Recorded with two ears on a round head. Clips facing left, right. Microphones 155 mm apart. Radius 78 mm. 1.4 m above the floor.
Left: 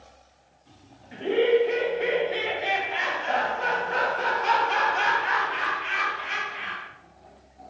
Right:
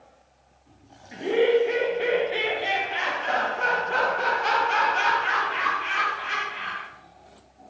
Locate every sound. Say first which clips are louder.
1.1 s laughter: right 1 dB; 10° right (ahead or behind), 0.8 m; by 6.9 s 45° right (ahead or behind), 3.5 m